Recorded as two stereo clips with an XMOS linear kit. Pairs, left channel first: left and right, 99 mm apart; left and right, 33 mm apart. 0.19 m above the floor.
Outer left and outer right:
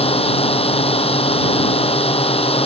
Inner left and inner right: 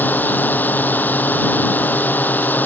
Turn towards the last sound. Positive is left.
turn(degrees=80)